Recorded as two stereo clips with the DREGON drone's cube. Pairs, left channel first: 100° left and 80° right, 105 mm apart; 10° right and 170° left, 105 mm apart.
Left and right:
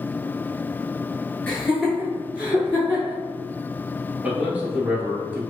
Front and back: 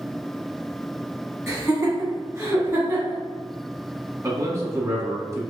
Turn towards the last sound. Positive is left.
turn(degrees=-150)